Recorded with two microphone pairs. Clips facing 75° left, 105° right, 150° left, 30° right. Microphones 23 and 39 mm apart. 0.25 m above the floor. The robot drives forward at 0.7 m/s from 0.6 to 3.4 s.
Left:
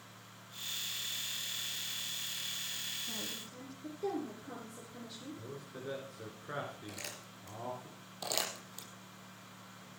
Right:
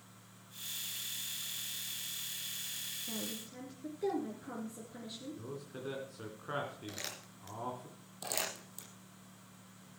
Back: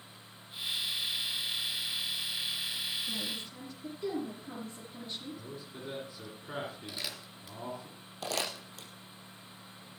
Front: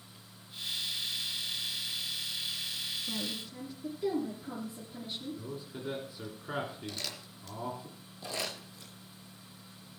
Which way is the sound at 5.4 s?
100° right.